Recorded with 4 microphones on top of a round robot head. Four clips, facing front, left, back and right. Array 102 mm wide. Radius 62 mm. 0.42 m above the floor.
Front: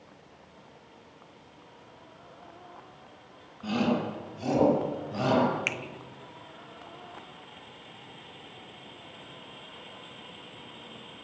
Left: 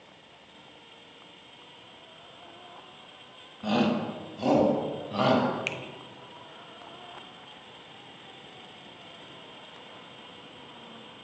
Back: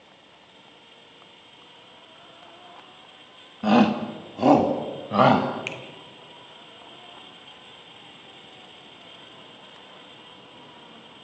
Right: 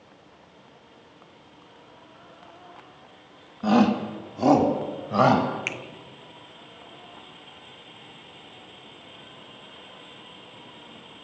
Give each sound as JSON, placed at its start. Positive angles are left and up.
{"t": 3.6, "sound": "a shout", "azimuth_deg": -160, "distance_m": 3.0}
{"t": 5.7, "sound": "a finger snap", "azimuth_deg": -45, "distance_m": 0.9}